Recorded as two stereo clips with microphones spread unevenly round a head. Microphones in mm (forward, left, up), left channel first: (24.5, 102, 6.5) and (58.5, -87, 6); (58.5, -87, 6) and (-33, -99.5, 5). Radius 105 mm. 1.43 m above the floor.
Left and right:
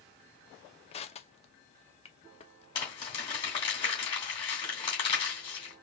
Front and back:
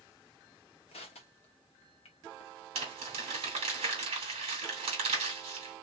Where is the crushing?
40° left, 0.7 m.